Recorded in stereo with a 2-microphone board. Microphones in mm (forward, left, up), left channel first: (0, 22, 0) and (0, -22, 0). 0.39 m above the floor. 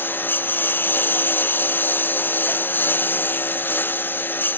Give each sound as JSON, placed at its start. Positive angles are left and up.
{"t": 0.0, "sound": "a lawn mower", "side_deg": 55}